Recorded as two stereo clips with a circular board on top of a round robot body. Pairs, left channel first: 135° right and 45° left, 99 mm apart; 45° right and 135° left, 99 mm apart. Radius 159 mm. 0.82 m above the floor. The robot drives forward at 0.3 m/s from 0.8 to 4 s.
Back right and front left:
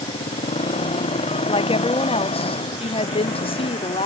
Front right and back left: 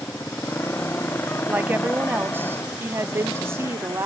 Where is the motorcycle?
115° right.